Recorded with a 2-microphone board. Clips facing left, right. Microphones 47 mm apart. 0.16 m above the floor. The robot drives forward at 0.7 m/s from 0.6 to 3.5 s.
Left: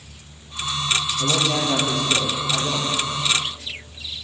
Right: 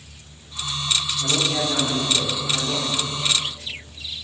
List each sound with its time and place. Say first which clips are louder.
1.2 s a man speaking: left 1 dB; 55° left (ahead or behind), 4.5 m; by 2.9 s 45° left (ahead or behind), 5 m